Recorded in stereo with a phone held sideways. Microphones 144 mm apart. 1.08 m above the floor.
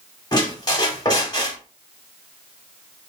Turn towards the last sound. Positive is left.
turn(degrees=30)  # may be behind; listen again after turning